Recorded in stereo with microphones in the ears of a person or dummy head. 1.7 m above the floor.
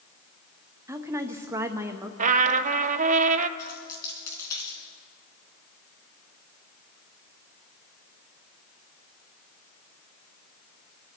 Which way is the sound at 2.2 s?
40° right (ahead or behind).